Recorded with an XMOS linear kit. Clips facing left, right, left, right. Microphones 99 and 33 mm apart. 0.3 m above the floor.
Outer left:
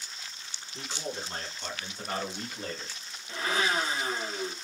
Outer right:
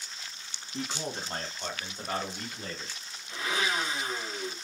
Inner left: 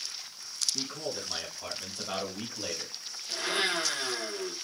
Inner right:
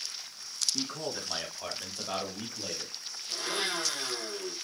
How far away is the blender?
About 1.3 m.